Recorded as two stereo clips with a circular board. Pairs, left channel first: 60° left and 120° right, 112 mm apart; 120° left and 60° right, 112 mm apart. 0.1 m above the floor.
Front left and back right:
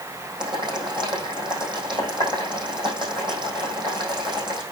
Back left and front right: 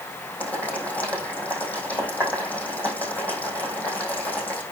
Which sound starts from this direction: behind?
Boiling, at 0.4 s.